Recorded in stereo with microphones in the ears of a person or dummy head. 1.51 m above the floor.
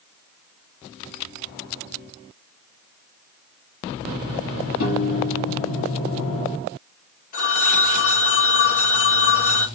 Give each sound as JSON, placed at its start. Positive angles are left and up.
{"t": 4.8, "sound": "a piano", "side_deg": 75, "distance_m": 1.7}
{"t": 7.3, "sound": "a phone ringing", "side_deg": 40, "distance_m": 1.2}